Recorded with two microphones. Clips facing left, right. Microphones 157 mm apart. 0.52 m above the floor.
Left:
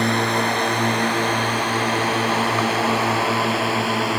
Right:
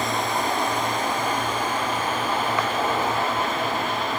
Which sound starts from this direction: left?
A drone, at 0.0 s.